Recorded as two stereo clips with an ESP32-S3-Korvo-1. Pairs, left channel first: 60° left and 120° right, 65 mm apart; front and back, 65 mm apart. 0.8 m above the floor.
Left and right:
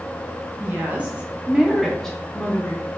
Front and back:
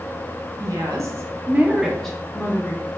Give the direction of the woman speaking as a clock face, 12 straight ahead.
6 o'clock.